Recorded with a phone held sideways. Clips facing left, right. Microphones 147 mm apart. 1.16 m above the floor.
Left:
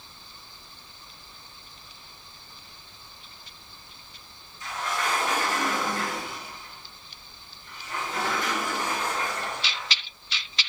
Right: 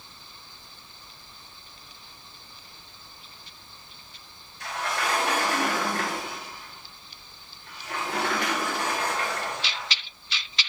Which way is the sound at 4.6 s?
70° right (ahead or behind).